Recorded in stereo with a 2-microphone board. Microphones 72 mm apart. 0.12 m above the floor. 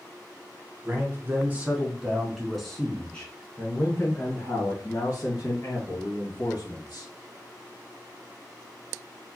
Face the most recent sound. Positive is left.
turn(degrees=60)  # may be behind; listen again after turning